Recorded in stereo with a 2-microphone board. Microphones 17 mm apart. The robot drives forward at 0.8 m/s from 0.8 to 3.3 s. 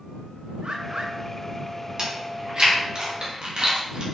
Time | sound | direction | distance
0.6 | a bird | 85° right | 1.2 m
2.0 | chewing | 50° right (ahead or behind) | 3 m